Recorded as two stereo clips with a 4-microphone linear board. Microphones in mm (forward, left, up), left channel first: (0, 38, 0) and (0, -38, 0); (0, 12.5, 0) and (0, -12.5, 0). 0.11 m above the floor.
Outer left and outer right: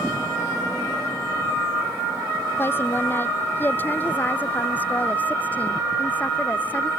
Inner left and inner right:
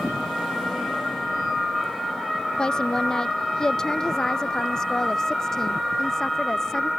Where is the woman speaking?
30° left (ahead or behind); by 6.9 s 20° left (ahead or behind).